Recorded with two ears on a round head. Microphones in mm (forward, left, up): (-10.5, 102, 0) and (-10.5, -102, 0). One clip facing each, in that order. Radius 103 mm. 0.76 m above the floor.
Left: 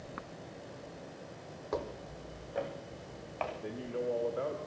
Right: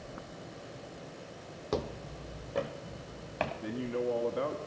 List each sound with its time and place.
1.7 s footsteps: 40° right (ahead or behind), 1.1 m; by 3.5 s 50° right (ahead or behind), 2.5 m
3.6 s a man speaking: 60° right (ahead or behind), 1.3 m